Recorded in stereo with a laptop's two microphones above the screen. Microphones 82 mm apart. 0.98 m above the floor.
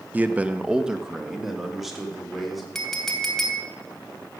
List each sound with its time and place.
0.1 s a man speaking: 20° right (ahead or behind), 0.8 m; by 2.6 s 5° right (ahead or behind), 4 m
2.8 s a clink: centre (ahead or behind), 3 m